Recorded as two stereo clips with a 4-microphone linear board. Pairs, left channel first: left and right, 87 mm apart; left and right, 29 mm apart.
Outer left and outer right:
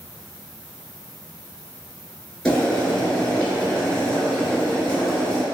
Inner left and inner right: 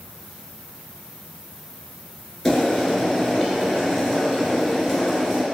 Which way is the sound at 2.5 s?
10° left (ahead or behind).